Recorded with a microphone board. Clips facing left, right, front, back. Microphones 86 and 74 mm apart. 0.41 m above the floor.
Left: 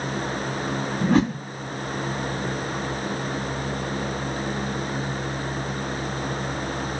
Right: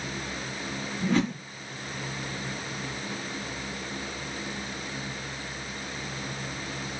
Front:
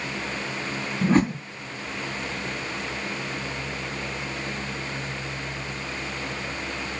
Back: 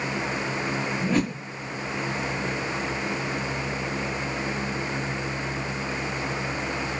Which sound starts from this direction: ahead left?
A whoosh, at 1.0 s.